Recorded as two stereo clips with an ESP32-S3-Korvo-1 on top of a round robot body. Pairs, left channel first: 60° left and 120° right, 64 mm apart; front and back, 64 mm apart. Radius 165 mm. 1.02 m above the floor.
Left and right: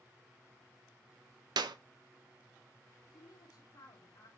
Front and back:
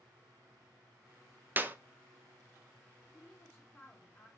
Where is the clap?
115° right, 0.6 m.